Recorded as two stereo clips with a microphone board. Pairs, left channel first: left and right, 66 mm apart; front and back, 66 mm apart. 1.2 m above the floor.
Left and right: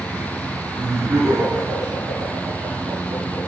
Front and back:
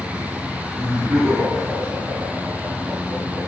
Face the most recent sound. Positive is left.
turn(degrees=-125)